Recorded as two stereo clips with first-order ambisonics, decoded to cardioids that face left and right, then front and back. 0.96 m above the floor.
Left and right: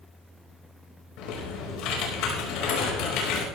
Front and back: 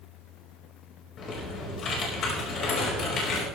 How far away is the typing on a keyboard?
About 5 m.